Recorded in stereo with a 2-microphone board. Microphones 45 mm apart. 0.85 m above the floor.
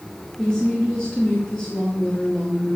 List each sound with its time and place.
0.4 s a woman speaking: 20° left (ahead or behind), 6.5 m